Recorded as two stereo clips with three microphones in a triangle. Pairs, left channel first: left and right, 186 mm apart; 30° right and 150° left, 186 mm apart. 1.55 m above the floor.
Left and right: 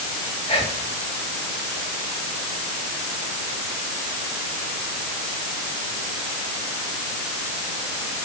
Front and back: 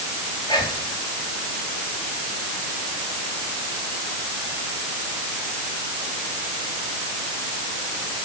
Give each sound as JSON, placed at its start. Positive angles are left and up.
{"t": 0.5, "sound": "whispering", "azimuth_deg": 35, "distance_m": 2.5}